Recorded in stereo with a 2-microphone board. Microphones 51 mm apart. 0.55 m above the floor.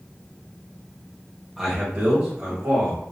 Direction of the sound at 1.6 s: 5° right (ahead or behind).